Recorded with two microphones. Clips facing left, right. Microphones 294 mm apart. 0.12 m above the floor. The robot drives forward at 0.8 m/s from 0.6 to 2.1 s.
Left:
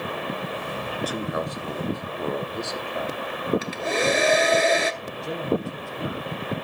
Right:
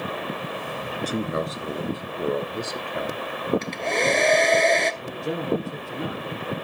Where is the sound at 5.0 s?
60° right (ahead or behind), 3 m.